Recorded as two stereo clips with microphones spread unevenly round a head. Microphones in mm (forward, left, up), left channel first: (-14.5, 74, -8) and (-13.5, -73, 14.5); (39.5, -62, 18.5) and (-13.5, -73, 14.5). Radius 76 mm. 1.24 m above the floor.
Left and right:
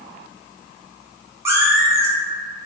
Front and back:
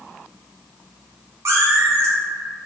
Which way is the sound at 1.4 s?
150° right.